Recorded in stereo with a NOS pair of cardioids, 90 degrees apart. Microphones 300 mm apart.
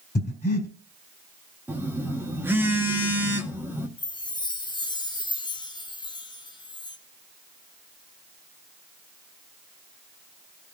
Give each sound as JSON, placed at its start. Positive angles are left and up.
{"t": 0.1, "sound": "breathing", "azimuth_deg": 30, "distance_m": 3.0}
{"t": 1.7, "sound": "a phone buzzing", "azimuth_deg": -5, "distance_m": 1.3}
{"t": 4.0, "sound": "a chime", "azimuth_deg": 15, "distance_m": 0.9}